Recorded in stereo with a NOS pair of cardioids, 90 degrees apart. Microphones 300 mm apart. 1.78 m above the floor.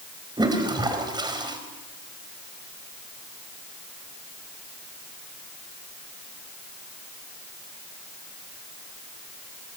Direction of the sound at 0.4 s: 15° right.